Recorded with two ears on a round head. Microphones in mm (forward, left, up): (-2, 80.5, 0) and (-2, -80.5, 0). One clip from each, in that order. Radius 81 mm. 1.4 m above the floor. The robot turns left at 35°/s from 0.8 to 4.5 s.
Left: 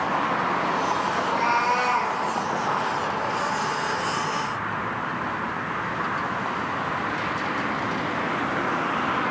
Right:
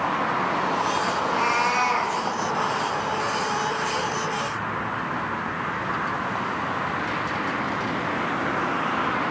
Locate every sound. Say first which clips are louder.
1.1 s a cat meowing: left 1 dB; 75° right, 5 m; by 2.1 s 110° right, 5 m